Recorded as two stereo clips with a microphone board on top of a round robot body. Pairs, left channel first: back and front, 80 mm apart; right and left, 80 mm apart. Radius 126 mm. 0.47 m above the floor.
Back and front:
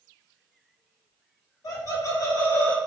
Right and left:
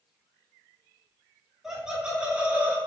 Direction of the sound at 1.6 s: 175° left.